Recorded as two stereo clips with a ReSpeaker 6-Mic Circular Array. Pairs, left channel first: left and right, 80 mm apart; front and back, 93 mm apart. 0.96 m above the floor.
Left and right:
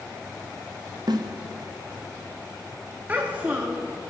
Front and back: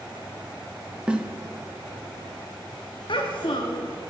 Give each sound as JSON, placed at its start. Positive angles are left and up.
{"t": 1.1, "sound": "a snare drum", "azimuth_deg": -100, "distance_m": 0.8}
{"t": 3.1, "sound": "a child speaking", "azimuth_deg": -20, "distance_m": 0.9}